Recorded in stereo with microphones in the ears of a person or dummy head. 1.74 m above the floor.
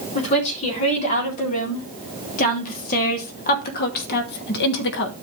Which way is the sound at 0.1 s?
40° left (ahead or behind).